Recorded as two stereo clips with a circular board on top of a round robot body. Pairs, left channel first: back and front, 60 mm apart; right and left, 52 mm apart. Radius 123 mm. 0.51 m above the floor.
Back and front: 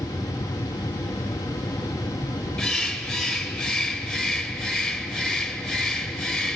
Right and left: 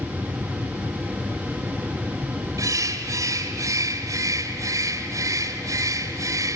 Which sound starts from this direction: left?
A bird, at 2.6 s.